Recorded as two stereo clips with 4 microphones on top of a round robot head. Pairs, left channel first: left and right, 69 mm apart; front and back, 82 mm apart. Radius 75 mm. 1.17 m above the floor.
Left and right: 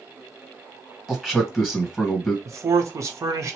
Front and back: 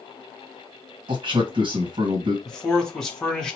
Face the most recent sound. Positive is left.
turn(degrees=-85)